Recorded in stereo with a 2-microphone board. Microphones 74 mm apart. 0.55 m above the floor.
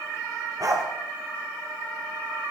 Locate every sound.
0.6 s a dog barking: 50° right (ahead or behind), 3.5 m